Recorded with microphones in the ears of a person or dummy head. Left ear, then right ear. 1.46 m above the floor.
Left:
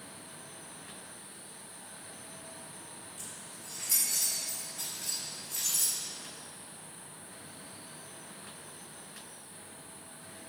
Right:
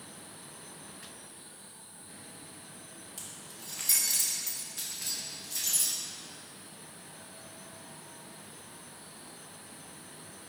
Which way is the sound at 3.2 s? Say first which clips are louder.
Right 3 dB; 40° right (ahead or behind).